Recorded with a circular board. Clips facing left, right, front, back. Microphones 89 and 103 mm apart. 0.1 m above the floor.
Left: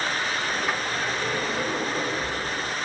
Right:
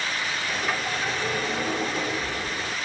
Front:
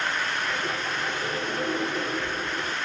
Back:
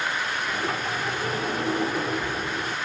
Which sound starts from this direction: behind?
A sliding door, at 0.5 s.